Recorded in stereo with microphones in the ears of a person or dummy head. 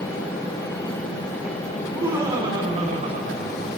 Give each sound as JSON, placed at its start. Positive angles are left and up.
{"t": 1.8, "sound": "laughter", "side_deg": -15, "distance_m": 3.5}